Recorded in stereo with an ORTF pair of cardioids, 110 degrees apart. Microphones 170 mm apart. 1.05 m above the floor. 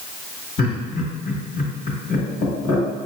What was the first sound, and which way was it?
Laughter, 55° left.